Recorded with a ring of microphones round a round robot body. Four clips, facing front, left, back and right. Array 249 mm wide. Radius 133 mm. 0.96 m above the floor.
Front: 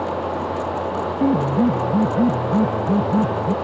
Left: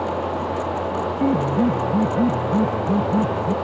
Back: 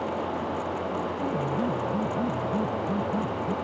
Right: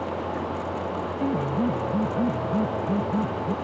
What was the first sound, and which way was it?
A piano, 30° left.